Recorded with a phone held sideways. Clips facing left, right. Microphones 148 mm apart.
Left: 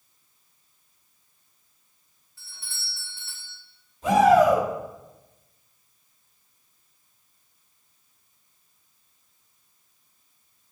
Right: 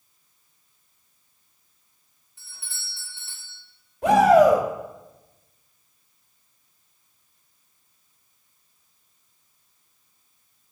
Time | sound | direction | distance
2.4 | a doorbell | 20° right (ahead or behind) | 4 m
4.0 | a shout | 65° right (ahead or behind) | 2.5 m